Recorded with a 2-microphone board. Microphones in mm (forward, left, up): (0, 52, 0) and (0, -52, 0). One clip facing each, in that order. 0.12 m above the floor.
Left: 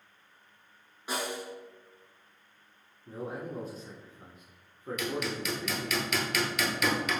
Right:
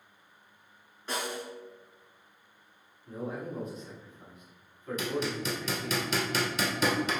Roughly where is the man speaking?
Left.